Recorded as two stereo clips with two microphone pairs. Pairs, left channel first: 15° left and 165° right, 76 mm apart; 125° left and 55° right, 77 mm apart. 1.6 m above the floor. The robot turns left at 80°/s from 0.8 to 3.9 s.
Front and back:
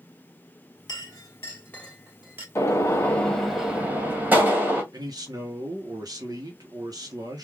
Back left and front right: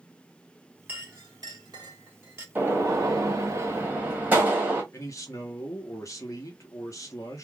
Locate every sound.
0.9 s a clink: 15° left, 1.3 m; by 2.5 s 110° right, 1.3 m
2.5 s a gunshot: 5° right, 1.1 m; by 4.8 s 110° right, 1.1 m
4.9 s a man speaking: 170° left, 0.9 m